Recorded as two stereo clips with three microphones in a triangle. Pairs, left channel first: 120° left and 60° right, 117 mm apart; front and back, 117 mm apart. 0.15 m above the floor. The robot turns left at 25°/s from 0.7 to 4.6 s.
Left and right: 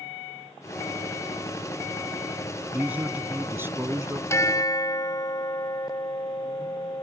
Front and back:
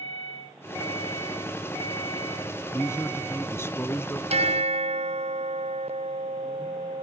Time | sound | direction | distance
2.7 | a man speaking | straight ahead | ?
4.3 | a bell | 175° right | ?